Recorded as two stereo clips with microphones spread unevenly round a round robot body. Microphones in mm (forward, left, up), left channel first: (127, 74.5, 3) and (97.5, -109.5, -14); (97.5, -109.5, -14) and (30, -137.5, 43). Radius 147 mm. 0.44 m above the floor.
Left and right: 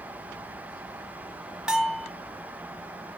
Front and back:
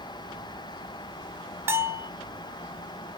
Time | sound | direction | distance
1.7 | a bell | 35° right | 1.1 m